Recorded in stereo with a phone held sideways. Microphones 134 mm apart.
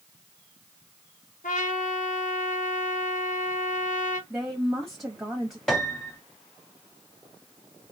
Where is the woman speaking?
15° right (ahead or behind), 1.0 m.